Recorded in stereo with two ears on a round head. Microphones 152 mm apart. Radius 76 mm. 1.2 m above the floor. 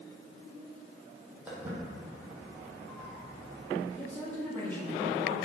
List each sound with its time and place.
1.5 s footsteps: 10° right (ahead or behind), 1.7 m; by 3.9 s centre (ahead or behind), 3 m
4.0 s a woman speaking: 15° left (ahead or behind), 1.8 m